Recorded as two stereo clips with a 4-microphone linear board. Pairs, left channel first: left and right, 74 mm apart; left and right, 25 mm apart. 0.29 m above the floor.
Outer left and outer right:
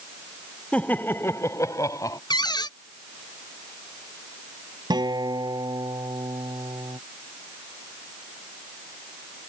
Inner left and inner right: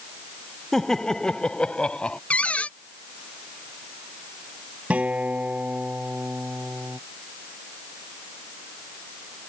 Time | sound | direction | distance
0.7 | laughter | 20° left (ahead or behind) | ?
2.3 | a cupboard door | 75° left (ahead or behind) | ?
4.9 | a guitar | 75° right (ahead or behind) | ?